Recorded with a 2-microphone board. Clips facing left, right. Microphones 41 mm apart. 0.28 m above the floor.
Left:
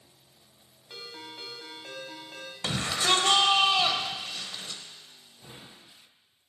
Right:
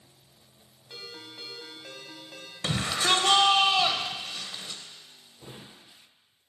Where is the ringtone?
10° left (ahead or behind), 1.1 m.